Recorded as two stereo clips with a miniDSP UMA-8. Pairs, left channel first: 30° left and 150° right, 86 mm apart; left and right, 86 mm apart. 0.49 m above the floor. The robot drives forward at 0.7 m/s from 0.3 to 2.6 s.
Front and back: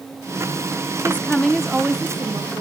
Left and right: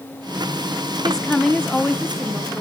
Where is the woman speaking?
20° left, 0.7 m; by 2.6 s 175° left, 1.0 m.